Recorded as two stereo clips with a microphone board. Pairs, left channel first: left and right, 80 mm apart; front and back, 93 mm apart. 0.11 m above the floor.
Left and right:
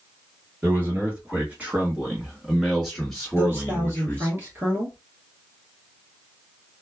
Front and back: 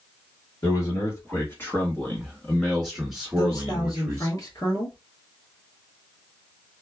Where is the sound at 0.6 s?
35° right, 1.8 m; by 4.3 s 145° left, 1.5 m.